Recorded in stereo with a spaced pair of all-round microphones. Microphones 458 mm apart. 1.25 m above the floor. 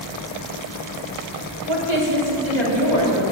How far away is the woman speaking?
About 3 m.